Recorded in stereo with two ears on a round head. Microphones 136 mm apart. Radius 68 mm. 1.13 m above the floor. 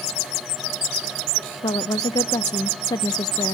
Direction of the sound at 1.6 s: 25° left (ahead or behind).